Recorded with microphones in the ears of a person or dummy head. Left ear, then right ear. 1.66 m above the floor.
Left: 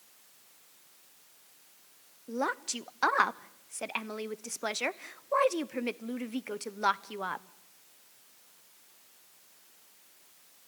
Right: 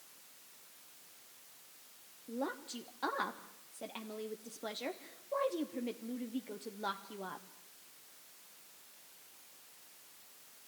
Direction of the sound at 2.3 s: 55° left (ahead or behind).